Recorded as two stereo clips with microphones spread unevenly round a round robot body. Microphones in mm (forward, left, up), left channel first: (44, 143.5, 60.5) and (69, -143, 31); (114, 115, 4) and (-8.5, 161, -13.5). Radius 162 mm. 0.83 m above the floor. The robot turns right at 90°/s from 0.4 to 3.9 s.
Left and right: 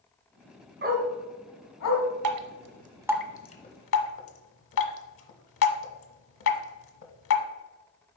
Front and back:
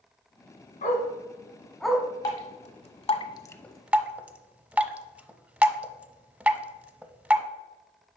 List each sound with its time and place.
0.8 s a dog barking: 30° right, 1.7 m; by 2.0 s 80° left, 1.7 m
2.2 s dripping: 75° right, 0.9 m; by 7.4 s 70° left, 0.9 m